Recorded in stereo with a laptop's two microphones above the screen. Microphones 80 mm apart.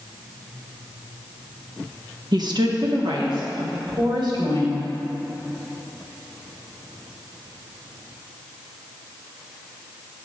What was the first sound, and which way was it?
A woman speaking, 55° right (ahead or behind).